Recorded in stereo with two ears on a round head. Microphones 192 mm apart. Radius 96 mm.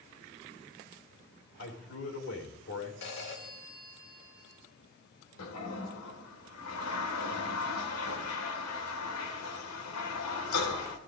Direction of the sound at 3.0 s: 65° left (ahead or behind).